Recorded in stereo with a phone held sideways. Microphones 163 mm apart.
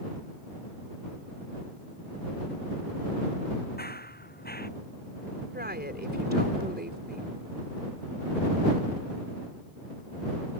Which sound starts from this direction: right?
A woman speaking, at 5.5 s.